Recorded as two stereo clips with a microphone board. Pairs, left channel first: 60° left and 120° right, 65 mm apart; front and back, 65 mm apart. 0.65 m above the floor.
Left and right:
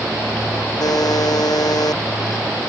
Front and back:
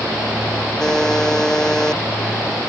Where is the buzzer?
85° left.